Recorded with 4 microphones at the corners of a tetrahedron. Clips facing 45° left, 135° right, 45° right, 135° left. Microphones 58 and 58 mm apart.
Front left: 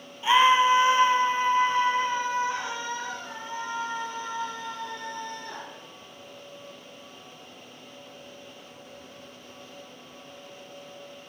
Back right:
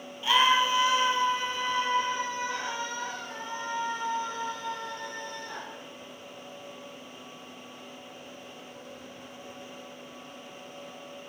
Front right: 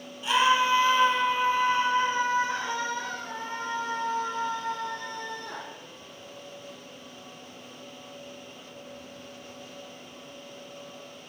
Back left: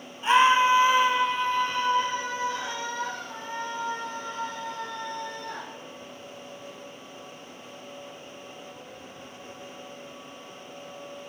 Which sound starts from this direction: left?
A scream, at 0.2 s.